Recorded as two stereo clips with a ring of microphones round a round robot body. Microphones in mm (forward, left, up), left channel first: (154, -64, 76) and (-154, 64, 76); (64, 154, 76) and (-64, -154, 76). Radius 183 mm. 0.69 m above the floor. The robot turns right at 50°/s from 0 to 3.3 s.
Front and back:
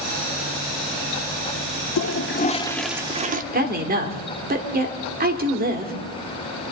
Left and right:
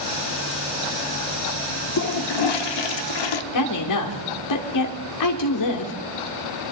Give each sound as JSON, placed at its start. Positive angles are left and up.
{"t": 2.0, "sound": "a toilet flushing", "azimuth_deg": 20, "distance_m": 0.7}
{"t": 3.5, "sound": "a woman speaking", "azimuth_deg": 95, "distance_m": 2.0}